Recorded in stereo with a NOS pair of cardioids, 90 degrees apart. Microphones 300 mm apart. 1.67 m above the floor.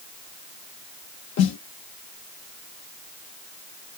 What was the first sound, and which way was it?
A snare drum, 55° left.